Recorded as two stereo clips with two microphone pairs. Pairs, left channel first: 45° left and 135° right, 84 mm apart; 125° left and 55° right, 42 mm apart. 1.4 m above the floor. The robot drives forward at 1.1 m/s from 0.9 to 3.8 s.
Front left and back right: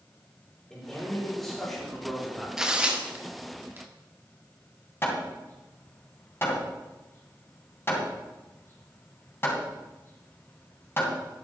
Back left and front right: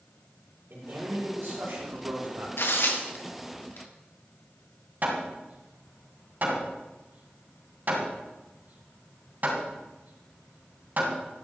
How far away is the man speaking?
About 5.5 m.